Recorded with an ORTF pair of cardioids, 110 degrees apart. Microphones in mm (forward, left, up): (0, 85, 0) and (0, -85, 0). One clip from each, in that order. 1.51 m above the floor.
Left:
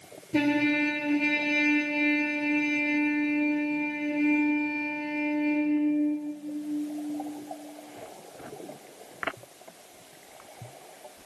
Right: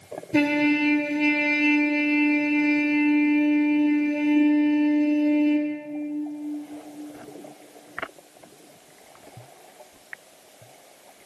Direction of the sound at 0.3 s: 30° right.